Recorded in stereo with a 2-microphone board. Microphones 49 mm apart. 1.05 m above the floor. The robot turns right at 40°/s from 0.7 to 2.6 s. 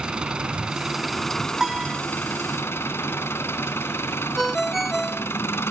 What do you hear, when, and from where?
0.0 s an engine running: 20° right; by 5.7 s 55° left
1.6 s a piano: 10° right (ahead or behind); by 2.0 s 25° right (ahead or behind)
4.4 s a ringtone: 5° right (ahead or behind)